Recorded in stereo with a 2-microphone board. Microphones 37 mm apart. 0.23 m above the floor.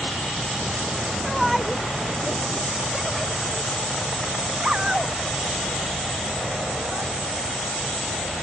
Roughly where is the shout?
Centre.